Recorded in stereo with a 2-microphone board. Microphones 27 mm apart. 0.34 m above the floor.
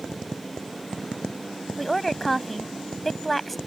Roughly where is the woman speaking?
Centre.